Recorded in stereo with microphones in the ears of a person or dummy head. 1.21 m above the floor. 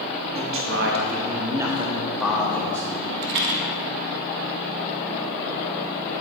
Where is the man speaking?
60° right (ahead or behind), 1.2 m; by 2.9 s 10° left (ahead or behind), 1.8 m.